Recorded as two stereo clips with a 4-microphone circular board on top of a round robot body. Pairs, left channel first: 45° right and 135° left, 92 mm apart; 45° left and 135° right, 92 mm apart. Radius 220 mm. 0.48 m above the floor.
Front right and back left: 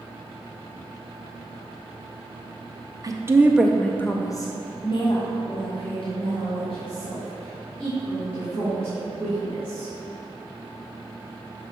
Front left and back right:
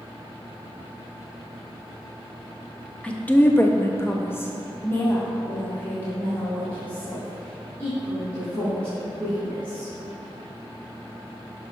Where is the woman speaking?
120° left, 0.9 m; by 9.9 s 30° right, 5 m.